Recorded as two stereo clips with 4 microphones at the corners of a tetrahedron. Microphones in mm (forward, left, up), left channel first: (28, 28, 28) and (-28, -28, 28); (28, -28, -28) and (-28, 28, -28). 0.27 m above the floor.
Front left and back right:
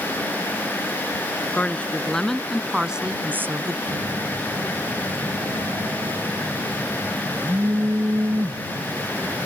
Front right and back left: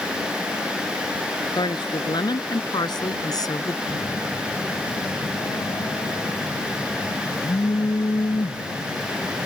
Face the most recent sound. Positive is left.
turn(degrees=-75)